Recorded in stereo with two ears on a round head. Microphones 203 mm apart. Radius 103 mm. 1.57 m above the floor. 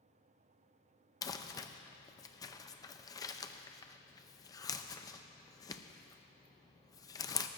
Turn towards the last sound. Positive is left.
turn(degrees=15)  # may be behind; listen again after turning